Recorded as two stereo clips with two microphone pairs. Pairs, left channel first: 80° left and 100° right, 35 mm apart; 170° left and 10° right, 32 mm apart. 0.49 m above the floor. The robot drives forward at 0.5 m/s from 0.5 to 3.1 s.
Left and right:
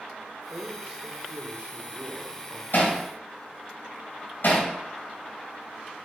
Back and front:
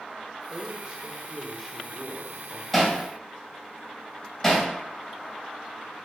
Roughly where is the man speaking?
Ahead right.